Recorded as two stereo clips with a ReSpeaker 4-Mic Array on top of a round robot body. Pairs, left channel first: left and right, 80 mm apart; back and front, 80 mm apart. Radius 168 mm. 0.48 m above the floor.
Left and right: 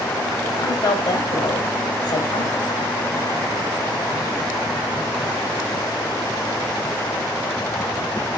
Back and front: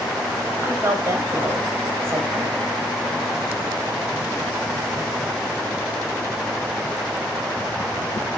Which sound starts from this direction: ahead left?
A woman speaking, at 0.6 s.